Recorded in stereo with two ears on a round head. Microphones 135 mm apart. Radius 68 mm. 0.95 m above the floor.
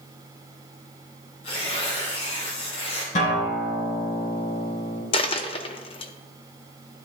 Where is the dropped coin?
35° left (ahead or behind), 0.6 m.